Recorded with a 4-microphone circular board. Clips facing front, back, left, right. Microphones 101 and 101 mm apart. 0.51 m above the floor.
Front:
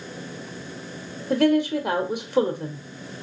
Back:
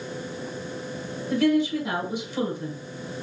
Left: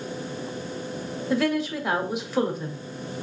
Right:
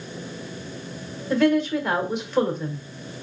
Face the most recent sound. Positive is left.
turn(degrees=5)